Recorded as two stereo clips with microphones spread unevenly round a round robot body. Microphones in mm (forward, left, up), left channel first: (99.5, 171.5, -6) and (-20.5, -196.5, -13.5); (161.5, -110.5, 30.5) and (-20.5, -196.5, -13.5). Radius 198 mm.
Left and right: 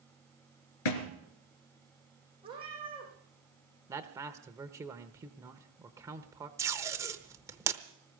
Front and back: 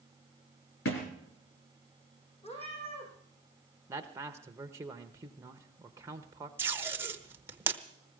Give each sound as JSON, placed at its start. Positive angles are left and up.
{"t": 0.8, "sound": "a thud", "azimuth_deg": 75, "distance_m": 3.0}
{"t": 2.4, "sound": "a cat meowing", "azimuth_deg": -30, "distance_m": 7.5}
{"t": 3.9, "sound": "a man speaking", "azimuth_deg": 180, "distance_m": 0.9}
{"t": 6.6, "sound": "tape being pulled", "azimuth_deg": -175, "distance_m": 0.9}